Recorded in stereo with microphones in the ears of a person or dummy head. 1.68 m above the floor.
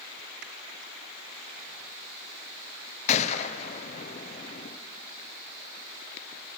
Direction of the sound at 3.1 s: 35° left (ahead or behind).